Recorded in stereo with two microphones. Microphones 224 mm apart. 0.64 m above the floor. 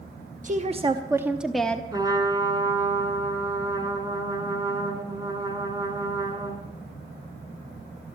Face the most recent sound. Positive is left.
turn(degrees=-20)  # may be behind; listen again after turning